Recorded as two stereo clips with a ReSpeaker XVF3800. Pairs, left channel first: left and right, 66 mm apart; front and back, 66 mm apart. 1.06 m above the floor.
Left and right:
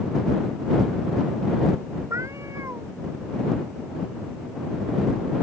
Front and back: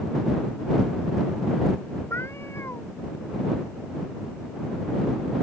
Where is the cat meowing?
50° right.